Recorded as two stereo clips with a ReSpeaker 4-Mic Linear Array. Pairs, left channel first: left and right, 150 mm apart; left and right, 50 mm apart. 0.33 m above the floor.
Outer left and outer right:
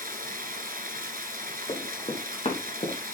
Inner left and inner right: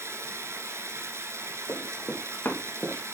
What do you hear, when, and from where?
0.0 s running water: 75° right (ahead or behind), 1.7 m
1.7 s running footsteps: 35° left (ahead or behind), 3 m; by 3.1 s 50° left (ahead or behind), 2.5 m